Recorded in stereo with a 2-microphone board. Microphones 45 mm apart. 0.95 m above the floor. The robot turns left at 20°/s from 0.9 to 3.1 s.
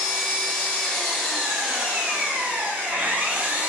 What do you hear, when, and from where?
0.0 s an engine running: 5° left, 0.8 m; by 3.7 s 40° right, 0.8 m